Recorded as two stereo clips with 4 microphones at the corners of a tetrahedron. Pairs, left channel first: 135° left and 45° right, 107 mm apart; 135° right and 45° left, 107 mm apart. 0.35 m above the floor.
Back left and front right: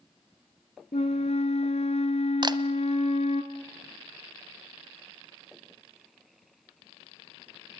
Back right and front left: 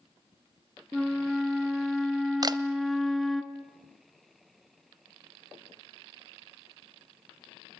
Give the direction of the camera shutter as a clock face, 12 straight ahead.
12 o'clock.